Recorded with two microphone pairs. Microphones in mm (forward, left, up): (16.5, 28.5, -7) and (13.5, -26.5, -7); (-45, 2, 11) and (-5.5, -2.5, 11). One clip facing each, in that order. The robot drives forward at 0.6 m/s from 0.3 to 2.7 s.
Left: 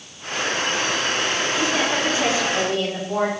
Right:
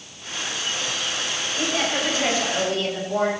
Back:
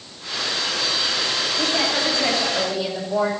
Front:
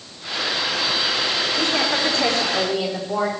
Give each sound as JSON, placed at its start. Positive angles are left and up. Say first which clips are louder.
{"t": 1.5, "sound": "a woman speaking", "louder": "even, even", "azimuth_deg": 30, "distance_m": 9.0}